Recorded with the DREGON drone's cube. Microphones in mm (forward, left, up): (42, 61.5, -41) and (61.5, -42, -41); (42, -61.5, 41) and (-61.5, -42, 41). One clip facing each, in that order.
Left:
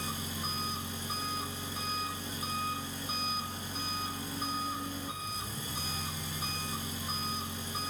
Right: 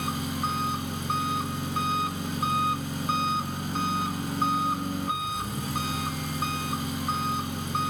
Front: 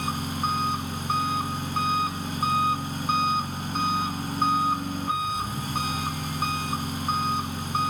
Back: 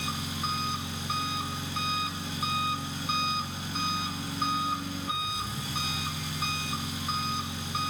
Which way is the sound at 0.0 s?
55° right.